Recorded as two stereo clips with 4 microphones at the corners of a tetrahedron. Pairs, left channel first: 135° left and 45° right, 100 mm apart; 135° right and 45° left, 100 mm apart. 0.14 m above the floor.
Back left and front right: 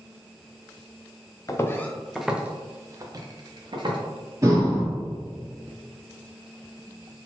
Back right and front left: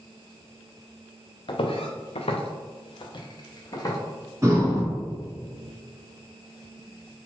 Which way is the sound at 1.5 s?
165° right.